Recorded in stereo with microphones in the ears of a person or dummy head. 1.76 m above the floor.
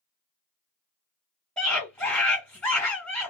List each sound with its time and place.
1.6 s a scream: 10° left (ahead or behind), 1.6 m